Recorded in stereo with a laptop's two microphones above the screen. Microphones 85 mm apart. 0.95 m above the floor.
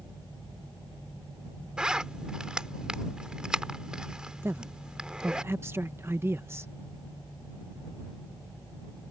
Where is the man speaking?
30° right (ahead or behind).